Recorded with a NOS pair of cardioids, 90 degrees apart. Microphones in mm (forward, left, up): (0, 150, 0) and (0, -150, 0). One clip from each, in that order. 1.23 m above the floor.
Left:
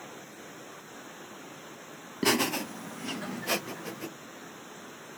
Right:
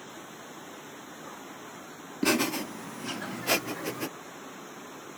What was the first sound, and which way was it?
Laughter, 15° left.